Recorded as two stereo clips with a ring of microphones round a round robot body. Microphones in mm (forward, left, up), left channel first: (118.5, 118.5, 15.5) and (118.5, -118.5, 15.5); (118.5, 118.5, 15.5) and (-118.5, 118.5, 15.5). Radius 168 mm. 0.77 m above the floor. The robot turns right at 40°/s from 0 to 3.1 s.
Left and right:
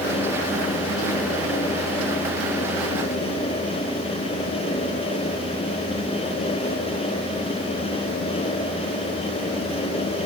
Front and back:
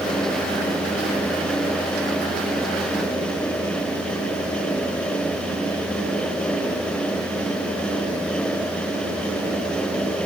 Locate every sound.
Only background noise.